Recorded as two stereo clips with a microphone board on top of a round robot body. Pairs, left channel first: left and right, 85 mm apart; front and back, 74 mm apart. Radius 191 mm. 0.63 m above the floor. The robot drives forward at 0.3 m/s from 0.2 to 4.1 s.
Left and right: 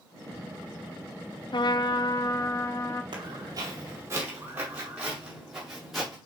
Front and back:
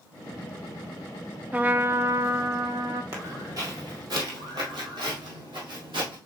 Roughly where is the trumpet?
Left.